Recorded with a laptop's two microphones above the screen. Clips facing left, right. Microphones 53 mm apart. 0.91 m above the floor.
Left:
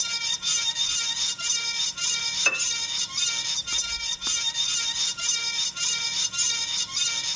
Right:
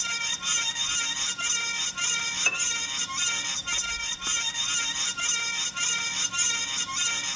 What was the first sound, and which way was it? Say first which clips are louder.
A fan: right 2 dB; 25° right (ahead or behind).